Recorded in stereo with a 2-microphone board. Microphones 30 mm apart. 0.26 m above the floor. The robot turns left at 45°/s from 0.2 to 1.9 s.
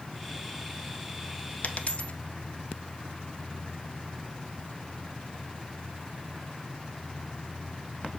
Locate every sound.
1.6 s a dropped coin: 55° left (ahead or behind), 0.7 m; by 2.1 s 45° left (ahead or behind), 0.7 m